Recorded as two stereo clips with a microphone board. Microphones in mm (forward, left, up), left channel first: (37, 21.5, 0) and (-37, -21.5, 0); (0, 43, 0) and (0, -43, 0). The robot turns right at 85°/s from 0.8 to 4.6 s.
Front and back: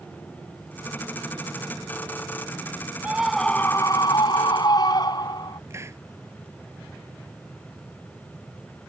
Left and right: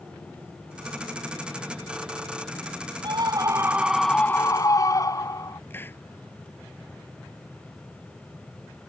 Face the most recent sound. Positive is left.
turn(degrees=155)